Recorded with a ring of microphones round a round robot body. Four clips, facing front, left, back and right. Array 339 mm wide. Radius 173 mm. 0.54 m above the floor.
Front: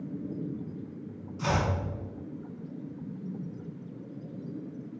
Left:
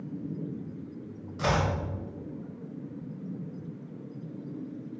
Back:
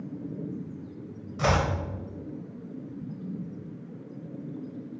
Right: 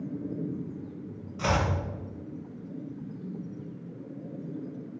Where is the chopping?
170° left, 1.4 m.